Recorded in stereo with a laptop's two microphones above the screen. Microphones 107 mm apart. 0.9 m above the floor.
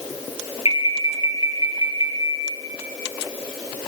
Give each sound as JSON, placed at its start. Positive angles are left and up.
{"t": 0.7, "sound": "an alarm", "side_deg": 60, "distance_m": 3.5}